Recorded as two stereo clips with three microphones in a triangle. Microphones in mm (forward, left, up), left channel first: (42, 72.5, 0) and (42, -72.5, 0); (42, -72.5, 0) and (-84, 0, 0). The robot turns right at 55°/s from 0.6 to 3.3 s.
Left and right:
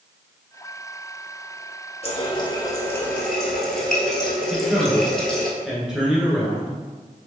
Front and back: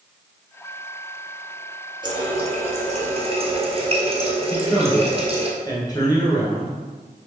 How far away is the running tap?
About 1.2 m.